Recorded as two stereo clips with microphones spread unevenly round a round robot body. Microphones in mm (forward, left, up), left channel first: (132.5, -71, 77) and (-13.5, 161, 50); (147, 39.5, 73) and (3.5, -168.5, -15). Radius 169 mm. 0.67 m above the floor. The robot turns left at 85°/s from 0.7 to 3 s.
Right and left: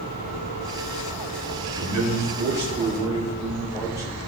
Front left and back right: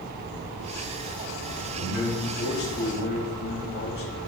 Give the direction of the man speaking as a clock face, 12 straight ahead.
7 o'clock.